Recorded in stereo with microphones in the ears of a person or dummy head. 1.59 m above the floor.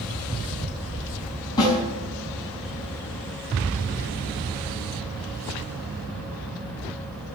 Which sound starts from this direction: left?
A snare drum, at 1.6 s.